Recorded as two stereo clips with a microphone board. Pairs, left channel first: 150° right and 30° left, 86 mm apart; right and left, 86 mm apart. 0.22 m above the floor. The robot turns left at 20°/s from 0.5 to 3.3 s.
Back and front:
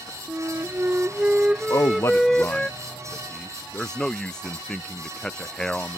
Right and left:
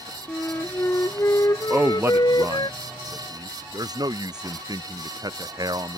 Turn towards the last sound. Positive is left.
turn(degrees=130)